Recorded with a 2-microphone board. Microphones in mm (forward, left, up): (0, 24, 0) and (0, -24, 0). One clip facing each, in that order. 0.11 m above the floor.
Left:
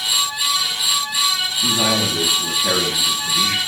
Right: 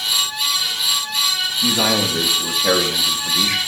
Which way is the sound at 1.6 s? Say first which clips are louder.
Right 1 dB; 60° right (ahead or behind).